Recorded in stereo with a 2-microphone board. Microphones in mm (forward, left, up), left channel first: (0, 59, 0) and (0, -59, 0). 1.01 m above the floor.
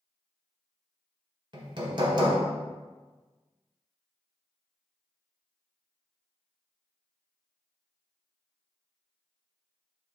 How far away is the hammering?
About 1.5 m.